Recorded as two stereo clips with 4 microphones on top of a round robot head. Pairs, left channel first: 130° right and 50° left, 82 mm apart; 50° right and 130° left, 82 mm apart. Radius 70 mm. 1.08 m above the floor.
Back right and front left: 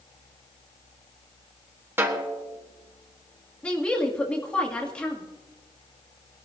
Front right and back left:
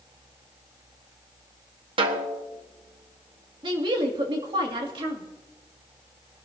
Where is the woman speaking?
150° left, 2.5 m.